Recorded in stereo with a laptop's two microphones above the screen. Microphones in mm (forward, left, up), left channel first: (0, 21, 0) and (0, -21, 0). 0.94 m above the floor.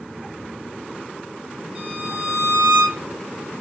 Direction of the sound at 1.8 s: 20° right (ahead or behind).